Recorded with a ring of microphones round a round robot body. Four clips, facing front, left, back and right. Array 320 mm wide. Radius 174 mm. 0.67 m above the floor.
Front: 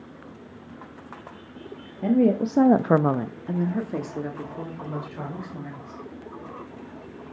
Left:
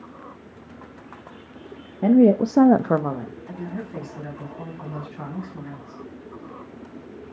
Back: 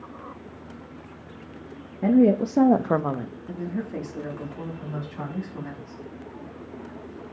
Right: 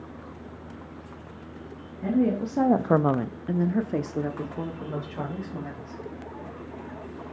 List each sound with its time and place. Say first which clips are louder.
2.0 s a woman speaking: left 9 dB, back 2 dB; 105° left, 1.0 m; by 6.0 s 65° right, 3.5 m